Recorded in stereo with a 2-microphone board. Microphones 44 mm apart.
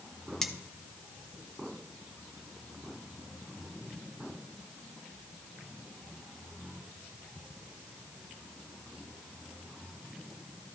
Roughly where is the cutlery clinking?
Centre.